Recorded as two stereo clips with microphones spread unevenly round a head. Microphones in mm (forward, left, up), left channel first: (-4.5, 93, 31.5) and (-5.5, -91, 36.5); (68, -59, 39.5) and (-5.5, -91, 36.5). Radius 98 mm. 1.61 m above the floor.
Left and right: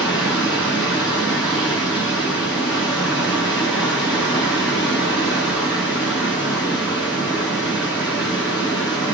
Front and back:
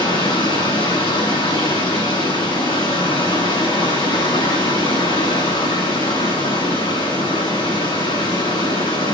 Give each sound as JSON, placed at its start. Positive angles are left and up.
{"t": 0.0, "sound": "running water", "azimuth_deg": 20, "distance_m": 8.5}